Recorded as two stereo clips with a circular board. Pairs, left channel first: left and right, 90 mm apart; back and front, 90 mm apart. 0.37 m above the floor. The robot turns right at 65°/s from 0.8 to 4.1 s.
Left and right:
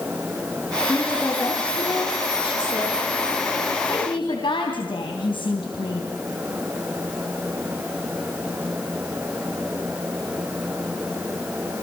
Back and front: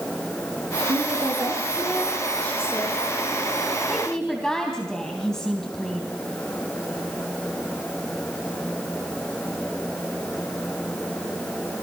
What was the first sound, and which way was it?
A woman speaking, 5° left.